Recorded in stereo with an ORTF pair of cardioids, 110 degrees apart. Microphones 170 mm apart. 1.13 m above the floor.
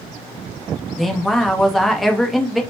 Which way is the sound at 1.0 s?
Straight ahead.